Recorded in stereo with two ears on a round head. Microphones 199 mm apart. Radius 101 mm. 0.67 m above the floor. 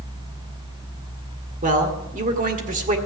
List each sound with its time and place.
1.6 s a man speaking: 35° right (ahead or behind), 2.0 m